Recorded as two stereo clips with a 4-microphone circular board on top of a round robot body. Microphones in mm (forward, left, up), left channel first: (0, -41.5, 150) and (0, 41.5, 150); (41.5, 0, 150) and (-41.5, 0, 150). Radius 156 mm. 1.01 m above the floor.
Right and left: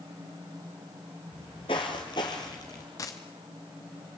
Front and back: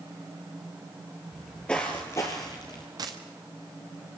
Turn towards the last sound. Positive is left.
turn(degrees=-140)